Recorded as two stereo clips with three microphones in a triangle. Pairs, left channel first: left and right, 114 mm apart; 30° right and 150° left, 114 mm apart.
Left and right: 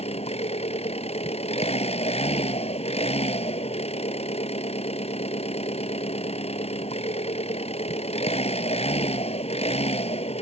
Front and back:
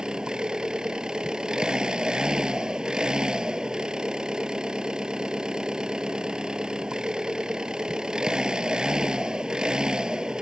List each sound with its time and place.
0.0 s an engine running: 65° left